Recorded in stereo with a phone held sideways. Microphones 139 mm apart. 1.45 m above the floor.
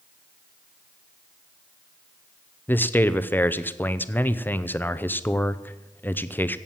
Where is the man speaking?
15° left (ahead or behind), 0.6 m.